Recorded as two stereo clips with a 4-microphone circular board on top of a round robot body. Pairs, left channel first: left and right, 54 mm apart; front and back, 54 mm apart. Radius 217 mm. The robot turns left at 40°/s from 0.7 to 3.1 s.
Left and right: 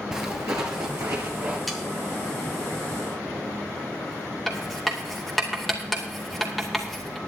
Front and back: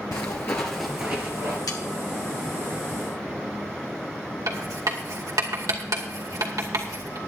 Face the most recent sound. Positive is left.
turn(degrees=180)